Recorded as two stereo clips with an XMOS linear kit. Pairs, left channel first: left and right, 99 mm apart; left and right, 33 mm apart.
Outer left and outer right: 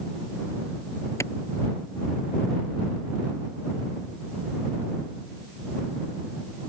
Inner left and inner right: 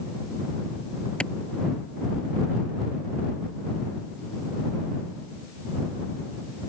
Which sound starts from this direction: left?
A clap, at 1.2 s.